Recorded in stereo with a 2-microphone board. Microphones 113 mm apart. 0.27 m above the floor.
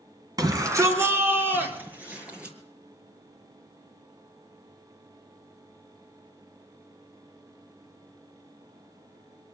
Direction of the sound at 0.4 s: 35° right (ahead or behind).